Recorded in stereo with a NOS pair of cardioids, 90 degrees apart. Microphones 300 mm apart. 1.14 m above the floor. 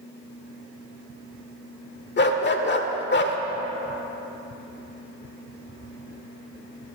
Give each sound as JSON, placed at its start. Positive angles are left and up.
{"t": 2.2, "sound": "a dog barking", "azimuth_deg": 35, "distance_m": 1.7}